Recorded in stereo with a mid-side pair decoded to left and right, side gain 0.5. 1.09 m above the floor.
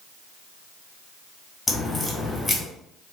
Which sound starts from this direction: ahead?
A crack, at 1.7 s.